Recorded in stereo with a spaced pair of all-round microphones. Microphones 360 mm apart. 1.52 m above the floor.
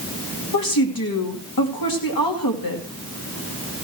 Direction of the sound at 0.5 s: 70° left (ahead or behind).